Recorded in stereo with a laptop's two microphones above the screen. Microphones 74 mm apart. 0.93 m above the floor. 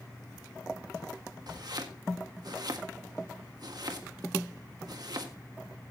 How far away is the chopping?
About 1.5 m.